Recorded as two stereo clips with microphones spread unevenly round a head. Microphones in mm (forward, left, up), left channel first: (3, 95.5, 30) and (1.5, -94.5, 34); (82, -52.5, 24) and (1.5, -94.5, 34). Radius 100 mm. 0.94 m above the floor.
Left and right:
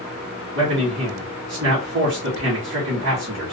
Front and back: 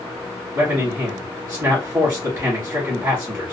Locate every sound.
0.6 s a man speaking: 90° right, 1.4 m